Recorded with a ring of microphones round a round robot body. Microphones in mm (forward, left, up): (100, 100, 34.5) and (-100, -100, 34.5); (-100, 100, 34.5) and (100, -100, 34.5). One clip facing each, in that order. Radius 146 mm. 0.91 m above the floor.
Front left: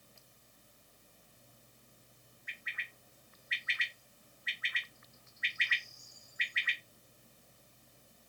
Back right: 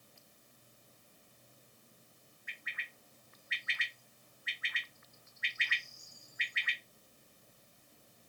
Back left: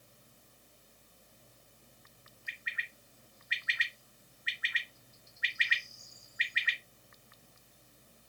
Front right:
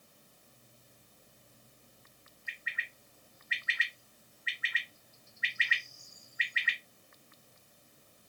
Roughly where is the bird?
Behind right.